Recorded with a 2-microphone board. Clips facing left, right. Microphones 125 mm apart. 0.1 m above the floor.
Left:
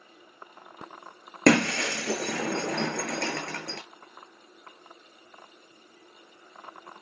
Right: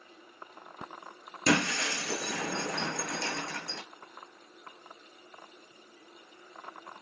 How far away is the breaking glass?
About 3.5 m.